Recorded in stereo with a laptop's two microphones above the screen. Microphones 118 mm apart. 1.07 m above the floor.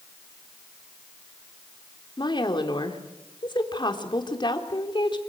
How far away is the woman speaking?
About 3.5 m.